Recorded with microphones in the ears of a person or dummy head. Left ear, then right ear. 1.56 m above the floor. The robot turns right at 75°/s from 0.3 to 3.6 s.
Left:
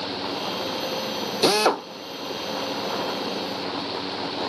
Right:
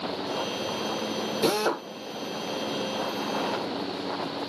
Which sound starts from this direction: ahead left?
A drill, at 1.4 s.